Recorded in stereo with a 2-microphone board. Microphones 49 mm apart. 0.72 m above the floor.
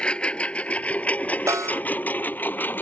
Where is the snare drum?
80° right.